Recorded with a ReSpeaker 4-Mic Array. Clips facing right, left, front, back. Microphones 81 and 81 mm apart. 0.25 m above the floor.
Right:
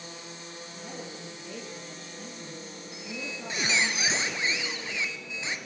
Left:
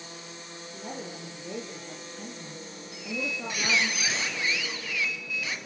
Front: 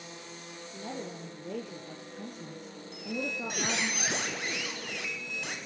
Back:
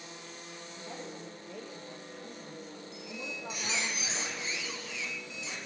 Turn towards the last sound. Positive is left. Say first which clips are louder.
# left 5 dB, front 9 dB
turn(degrees=-25)